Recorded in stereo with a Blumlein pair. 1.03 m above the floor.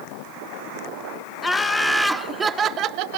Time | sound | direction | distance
1.4 | laughter | 10° left | 1.4 m